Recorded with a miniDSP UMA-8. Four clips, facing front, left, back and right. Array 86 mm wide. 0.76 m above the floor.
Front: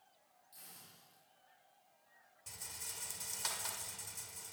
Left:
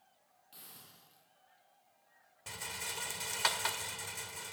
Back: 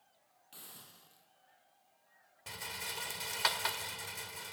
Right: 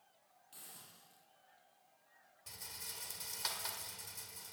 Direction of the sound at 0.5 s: 170° left.